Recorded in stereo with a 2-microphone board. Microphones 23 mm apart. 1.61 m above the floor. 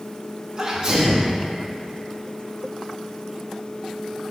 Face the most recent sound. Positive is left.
turn(degrees=-30)  # may be behind; listen again after turning